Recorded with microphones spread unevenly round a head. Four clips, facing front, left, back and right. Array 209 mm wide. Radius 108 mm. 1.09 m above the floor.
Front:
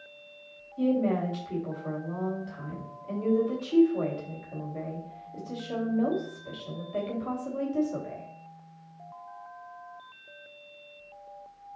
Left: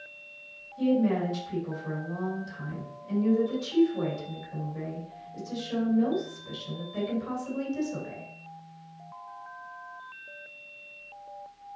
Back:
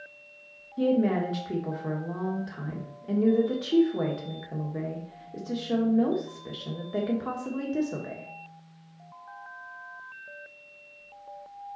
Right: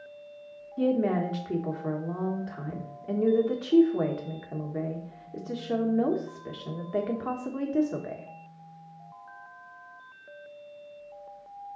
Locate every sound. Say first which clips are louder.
0.8 s a woman speaking: even, back 2 dB; 130° right, 1.6 m